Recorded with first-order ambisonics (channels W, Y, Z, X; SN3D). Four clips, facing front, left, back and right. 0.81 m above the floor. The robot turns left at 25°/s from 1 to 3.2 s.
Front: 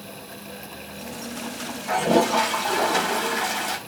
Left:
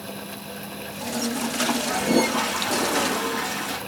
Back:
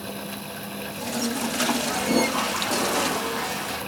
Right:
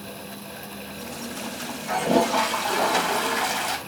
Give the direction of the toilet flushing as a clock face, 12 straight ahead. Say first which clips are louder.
Right 4 dB, front 3 dB; 1 o'clock.